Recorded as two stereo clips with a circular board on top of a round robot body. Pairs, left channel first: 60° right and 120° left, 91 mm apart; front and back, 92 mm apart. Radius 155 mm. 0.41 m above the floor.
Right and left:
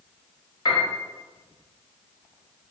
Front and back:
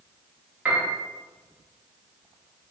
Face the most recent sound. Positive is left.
turn(degrees=-105)